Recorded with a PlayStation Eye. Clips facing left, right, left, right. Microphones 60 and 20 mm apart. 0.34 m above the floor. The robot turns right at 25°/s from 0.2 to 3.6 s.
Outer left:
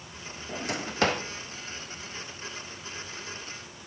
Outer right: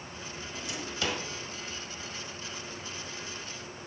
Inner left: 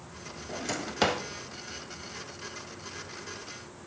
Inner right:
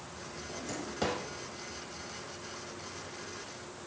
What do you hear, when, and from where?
0.5 s a drawer: 60° left (ahead or behind), 0.7 m; by 1.2 s 50° left (ahead or behind), 0.7 m